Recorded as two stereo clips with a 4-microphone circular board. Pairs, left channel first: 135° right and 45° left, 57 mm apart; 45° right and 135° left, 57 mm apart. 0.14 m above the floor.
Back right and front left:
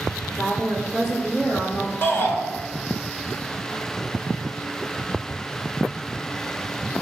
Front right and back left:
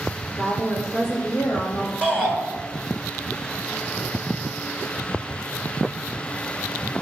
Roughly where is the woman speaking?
Right.